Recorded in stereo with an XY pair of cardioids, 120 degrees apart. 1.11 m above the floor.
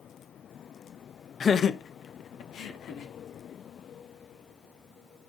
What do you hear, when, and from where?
1.4 s laughter: 35° left, 0.8 m; by 3.1 s 65° left, 2.5 m